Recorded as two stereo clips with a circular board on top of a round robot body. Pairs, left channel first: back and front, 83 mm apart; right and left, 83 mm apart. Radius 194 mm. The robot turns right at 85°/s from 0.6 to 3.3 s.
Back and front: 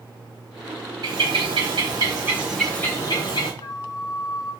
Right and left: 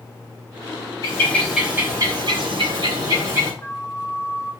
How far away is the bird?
About 4 m.